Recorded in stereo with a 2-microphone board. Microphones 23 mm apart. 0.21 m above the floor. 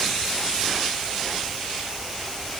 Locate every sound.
Only background noise.